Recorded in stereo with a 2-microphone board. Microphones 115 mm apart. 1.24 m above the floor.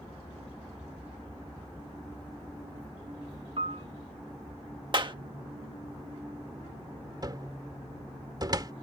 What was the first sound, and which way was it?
A piano, 55° right (ahead or behind).